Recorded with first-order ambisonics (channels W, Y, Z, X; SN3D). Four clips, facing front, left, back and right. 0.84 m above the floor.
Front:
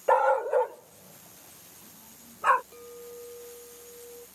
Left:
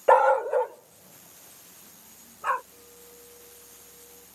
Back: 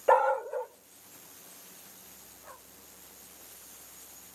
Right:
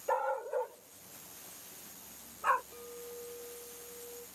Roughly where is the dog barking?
Left.